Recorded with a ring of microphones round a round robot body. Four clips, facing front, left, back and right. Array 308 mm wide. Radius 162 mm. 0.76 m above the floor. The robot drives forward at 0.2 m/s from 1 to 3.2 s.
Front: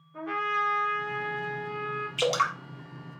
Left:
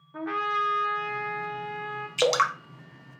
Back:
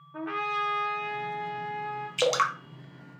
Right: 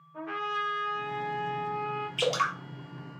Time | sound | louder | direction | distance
0.1 | a trumpet | left 5 dB, front 1 dB | 125° left | 1.6 m
2.2 | dripping | left 6 dB, back 1 dB | 115° left | 0.7 m